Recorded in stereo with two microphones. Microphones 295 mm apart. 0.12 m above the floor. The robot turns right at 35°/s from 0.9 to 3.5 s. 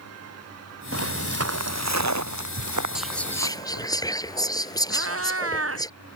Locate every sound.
0.9 s footsteps: 55° right (ahead or behind); by 3.9 s 75° right (ahead or behind)
3.0 s whispering: 5° right (ahead or behind); by 5.9 s 15° left (ahead or behind)
4.9 s a cat meowing: 50° right (ahead or behind)